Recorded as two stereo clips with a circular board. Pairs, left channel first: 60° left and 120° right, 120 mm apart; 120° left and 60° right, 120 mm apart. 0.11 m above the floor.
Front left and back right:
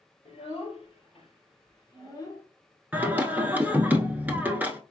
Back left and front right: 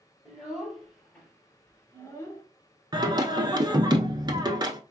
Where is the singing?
55° right, 0.8 m.